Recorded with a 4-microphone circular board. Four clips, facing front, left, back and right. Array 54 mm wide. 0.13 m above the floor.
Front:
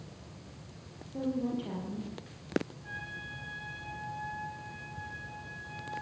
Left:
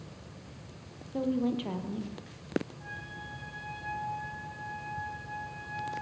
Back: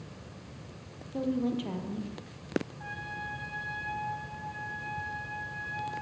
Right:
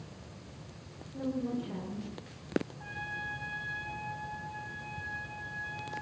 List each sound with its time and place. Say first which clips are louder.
1.1 s a woman speaking: left 5 dB, back 3 dB; 115° left, 4 m; by 2.2 s 105° left, 4 m
2.8 s a trumpet: right 4 dB, back 3 dB; 160° right, 6 m